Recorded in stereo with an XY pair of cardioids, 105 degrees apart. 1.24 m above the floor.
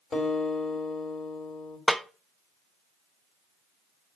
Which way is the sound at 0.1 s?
40° left.